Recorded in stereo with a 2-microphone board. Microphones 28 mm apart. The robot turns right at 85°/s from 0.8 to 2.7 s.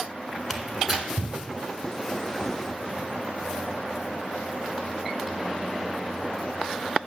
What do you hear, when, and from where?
0.5 s tearing paper: 5° right (ahead or behind), 1.1 m; by 1.4 s 45° right (ahead or behind), 1.1 m